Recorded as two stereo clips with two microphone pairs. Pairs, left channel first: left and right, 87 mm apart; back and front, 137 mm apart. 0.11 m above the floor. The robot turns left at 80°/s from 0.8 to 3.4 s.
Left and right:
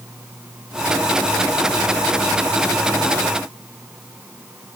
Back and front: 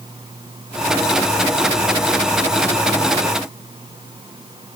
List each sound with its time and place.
Only background noise.